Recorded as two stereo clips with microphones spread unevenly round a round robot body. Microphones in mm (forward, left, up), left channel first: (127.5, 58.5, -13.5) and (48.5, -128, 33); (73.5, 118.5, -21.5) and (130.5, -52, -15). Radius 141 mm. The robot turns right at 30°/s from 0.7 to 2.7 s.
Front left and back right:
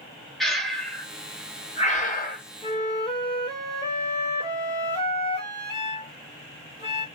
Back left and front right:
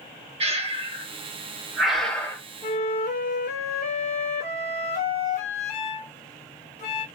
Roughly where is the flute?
Left.